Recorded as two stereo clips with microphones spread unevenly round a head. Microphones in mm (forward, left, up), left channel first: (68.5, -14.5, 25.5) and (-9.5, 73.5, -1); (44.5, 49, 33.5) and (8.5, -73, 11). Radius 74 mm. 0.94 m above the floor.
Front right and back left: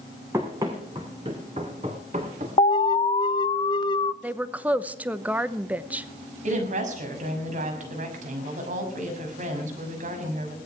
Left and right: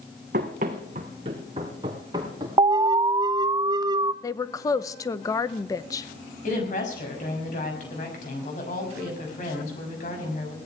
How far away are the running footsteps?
About 2.5 m.